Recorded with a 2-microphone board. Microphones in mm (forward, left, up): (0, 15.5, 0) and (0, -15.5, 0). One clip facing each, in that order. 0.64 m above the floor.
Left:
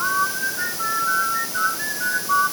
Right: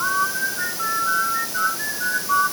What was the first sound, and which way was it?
Only background noise.